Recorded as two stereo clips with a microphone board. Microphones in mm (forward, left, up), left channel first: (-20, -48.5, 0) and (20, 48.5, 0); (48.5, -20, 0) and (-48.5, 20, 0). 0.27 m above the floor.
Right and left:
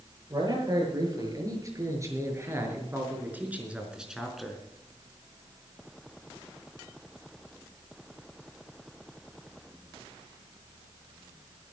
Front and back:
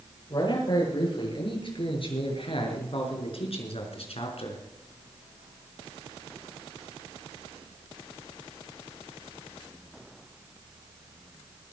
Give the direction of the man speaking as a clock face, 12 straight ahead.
11 o'clock.